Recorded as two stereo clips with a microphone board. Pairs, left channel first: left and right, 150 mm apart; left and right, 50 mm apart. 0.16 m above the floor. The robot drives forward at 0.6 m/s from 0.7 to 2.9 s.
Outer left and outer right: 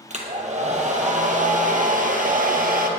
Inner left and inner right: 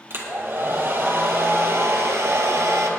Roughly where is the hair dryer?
Right.